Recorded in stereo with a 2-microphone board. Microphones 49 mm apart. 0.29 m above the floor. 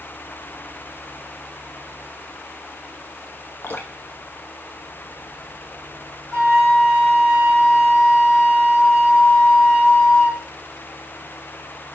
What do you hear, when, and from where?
3.6 s dripping: 50° left (ahead or behind), 0.5 m
6.3 s a flute: 15° left (ahead or behind), 1.2 m